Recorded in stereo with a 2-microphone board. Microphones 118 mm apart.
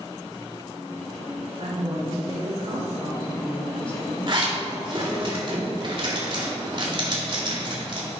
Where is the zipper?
45° right (ahead or behind), 2.0 m.